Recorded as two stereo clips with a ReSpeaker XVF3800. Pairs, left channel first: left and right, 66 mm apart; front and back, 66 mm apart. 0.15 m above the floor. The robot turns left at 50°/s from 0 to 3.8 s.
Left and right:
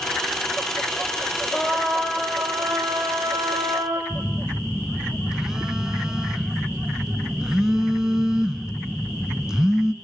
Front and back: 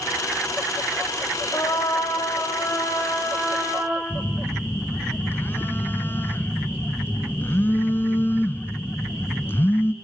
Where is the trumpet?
20° left, 5 m; by 4.0 s 95° right, 5 m.